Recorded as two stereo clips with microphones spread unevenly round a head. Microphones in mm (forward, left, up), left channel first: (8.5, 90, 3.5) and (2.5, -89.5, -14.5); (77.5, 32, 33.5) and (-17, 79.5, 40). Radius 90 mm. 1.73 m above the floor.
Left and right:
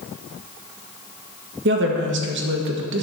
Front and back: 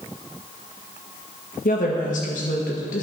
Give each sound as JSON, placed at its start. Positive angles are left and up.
{"t": 1.6, "sound": "a woman speaking", "azimuth_deg": -65, "distance_m": 1.6}